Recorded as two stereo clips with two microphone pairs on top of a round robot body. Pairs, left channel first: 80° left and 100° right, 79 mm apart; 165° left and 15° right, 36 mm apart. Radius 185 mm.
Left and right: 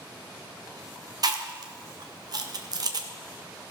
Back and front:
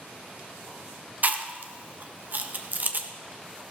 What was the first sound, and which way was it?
Chewing, 60° right.